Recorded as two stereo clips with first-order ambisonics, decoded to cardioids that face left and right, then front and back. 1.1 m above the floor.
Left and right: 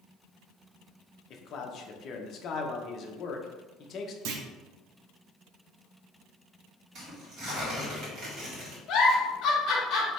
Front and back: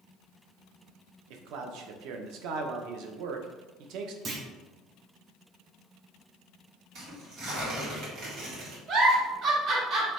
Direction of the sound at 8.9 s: 135° left.